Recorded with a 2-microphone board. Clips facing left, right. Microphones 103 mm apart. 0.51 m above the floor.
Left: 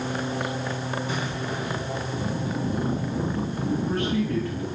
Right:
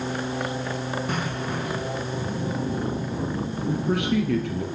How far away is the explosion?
About 5.5 m.